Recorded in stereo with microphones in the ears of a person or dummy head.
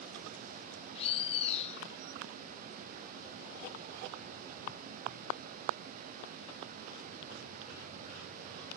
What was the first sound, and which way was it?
A bird, 40° left (ahead or behind).